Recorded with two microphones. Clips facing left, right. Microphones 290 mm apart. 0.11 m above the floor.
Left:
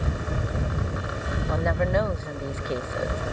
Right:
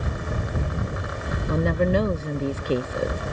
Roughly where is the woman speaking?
Right.